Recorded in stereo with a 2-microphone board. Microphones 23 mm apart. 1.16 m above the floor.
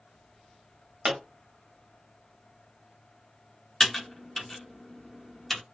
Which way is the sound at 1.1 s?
60° right (ahead or behind).